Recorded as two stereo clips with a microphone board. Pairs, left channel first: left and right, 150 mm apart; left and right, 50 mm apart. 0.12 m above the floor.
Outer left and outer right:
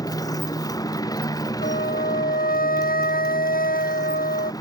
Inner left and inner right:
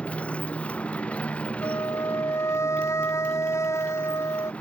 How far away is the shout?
No shout in this recording.